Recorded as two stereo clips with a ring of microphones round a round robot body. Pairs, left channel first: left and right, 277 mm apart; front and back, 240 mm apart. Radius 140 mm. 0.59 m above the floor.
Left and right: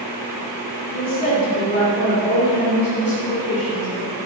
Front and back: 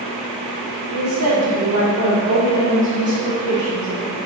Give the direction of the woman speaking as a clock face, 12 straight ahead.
7 o'clock.